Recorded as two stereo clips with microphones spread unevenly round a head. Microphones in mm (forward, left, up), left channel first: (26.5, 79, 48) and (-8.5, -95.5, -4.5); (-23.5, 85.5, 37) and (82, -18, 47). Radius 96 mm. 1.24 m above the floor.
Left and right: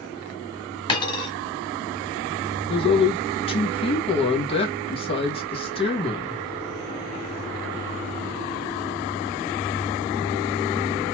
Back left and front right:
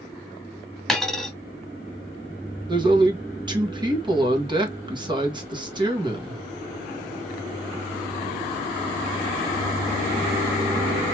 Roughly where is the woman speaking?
Ahead.